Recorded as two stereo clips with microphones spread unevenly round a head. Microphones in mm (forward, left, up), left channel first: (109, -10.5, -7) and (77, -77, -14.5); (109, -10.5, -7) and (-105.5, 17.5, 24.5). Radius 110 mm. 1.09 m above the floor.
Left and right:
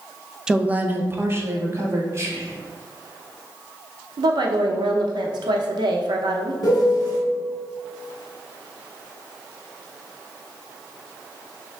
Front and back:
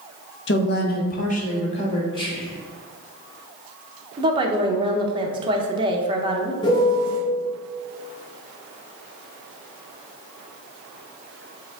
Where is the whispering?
75° right, 1.7 m.